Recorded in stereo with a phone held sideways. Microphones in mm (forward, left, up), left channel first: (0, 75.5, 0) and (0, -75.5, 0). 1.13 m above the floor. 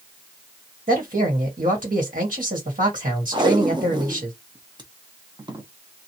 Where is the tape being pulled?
30° right (ahead or behind), 0.7 m.